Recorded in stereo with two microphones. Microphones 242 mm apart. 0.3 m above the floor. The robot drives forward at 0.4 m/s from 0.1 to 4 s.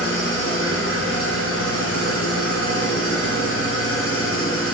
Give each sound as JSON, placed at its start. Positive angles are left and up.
{"t": 0.0, "sound": "an engine running", "side_deg": 60, "distance_m": 1.8}